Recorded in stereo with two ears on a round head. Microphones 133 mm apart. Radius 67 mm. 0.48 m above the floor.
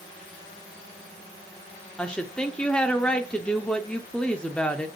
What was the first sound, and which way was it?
A woman speaking, 5° left (ahead or behind).